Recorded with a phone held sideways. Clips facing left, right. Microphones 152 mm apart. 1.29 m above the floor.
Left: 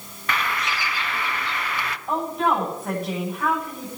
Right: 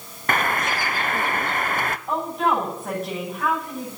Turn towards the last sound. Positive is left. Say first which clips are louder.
# left 1 dB
turn(degrees=0)  # may be behind; listen again after turning